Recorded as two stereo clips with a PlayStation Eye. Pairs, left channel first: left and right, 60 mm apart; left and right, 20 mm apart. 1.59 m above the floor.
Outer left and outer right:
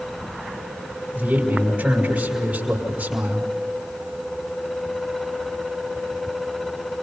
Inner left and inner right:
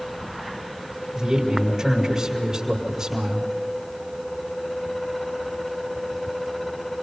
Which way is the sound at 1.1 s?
25° right (ahead or behind).